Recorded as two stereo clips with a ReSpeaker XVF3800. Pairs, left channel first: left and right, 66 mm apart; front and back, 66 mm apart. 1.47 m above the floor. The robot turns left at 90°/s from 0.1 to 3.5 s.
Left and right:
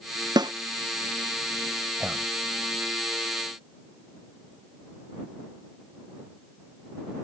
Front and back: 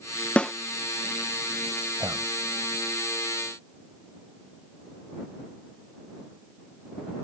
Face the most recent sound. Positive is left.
turn(degrees=80)